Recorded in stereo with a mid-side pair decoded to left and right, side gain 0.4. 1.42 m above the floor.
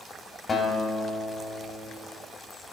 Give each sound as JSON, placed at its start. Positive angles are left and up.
{"t": 0.5, "sound": "a guitar", "azimuth_deg": 45, "distance_m": 3.5}